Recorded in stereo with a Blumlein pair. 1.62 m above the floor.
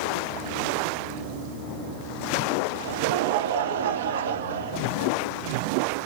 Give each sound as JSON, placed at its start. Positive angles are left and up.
{"t": 2.7, "sound": "laughter", "azimuth_deg": -60, "distance_m": 0.6}